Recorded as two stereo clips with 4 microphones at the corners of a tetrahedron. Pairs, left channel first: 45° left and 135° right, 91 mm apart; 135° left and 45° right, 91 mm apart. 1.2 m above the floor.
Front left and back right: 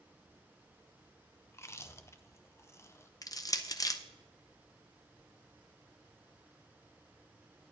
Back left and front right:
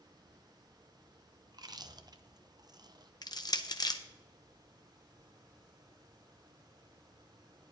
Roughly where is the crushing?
Left.